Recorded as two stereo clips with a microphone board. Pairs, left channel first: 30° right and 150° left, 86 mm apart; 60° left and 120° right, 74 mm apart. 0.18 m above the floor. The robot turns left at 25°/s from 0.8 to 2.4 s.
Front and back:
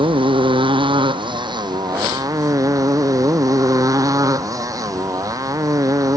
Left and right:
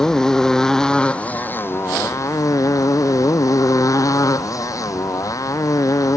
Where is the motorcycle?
140° left; by 6.2 s 100° left.